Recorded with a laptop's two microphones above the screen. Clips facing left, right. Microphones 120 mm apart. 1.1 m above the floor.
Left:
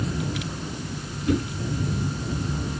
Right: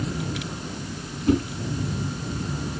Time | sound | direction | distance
1.3 | a whoosh | 40° right (ahead or behind) | 5.5 m